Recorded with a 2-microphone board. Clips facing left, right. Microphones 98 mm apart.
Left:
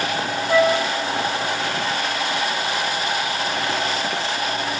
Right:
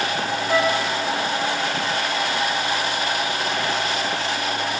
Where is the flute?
10° left (ahead or behind), 2.5 m.